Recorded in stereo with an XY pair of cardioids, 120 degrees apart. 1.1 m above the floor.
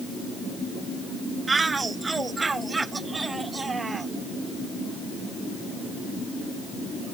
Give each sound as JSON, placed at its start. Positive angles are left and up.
{"t": 1.5, "sound": "a shout", "azimuth_deg": -20}